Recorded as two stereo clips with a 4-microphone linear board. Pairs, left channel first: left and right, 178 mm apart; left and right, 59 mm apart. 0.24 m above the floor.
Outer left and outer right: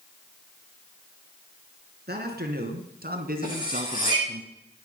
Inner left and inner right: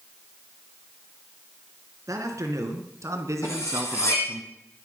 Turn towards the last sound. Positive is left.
turn(degrees=50)  # may be behind; listen again after turning